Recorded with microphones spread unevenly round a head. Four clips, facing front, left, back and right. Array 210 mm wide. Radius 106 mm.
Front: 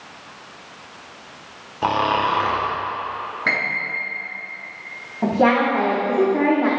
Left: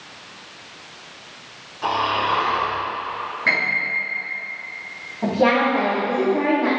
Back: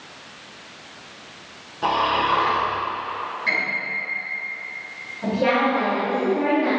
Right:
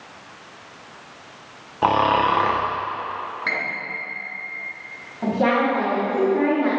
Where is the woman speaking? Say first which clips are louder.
Left 2 dB, front 3 dB; 10° left, 5 m.